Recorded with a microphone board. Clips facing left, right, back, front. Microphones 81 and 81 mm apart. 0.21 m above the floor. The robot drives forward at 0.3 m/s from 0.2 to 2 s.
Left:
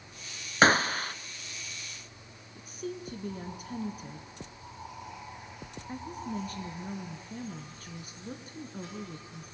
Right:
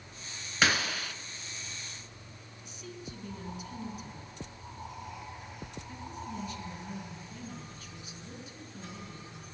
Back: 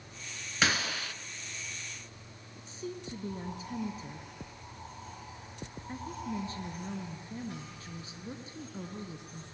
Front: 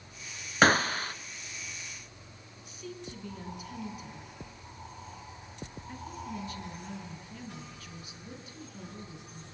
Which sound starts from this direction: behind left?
A woman speaking, at 2.5 s.